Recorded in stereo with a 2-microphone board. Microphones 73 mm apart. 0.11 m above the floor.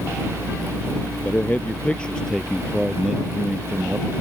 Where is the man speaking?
25° left (ahead or behind); by 4.1 s 15° right (ahead or behind).